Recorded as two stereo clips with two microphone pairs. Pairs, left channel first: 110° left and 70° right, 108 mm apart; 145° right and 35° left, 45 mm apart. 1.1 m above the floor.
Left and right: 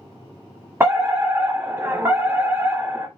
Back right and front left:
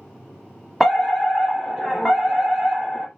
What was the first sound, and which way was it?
A fire alarm, 40° right.